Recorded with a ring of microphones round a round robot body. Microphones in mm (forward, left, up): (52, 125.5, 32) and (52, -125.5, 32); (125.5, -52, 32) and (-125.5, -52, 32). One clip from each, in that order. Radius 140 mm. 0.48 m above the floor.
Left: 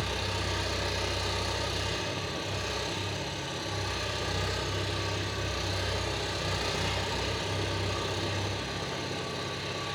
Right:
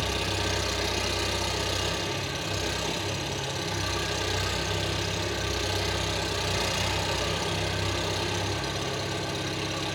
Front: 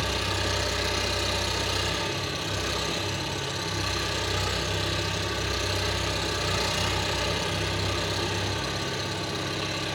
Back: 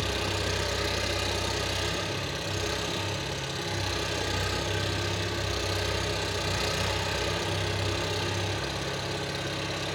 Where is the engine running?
95° right, 6 m.